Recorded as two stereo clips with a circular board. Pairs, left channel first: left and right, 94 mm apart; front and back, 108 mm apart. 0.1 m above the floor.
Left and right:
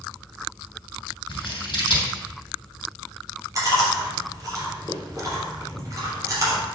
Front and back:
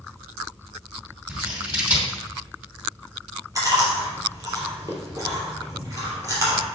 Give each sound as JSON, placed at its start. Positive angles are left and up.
{"t": 1.3, "sound": "scissors", "azimuth_deg": 105, "distance_m": 3.0}
{"t": 3.5, "sound": "chewing", "azimuth_deg": -130, "distance_m": 3.0}